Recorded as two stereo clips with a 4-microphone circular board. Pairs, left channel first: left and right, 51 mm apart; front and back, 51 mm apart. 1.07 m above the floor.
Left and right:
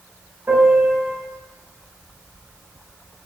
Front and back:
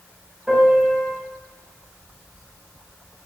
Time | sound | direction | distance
0.5 | a piano | 105° right | 1.3 m